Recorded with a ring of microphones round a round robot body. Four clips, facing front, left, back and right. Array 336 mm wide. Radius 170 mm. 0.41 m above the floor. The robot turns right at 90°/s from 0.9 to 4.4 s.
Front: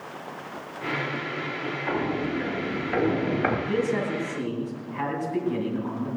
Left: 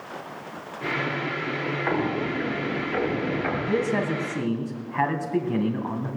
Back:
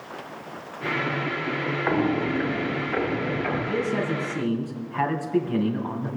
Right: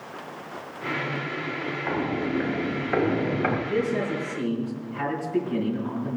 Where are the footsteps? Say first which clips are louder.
Even, back 4 dB; 165° left, 3.5 m; by 3.6 s 20° right, 4.5 m.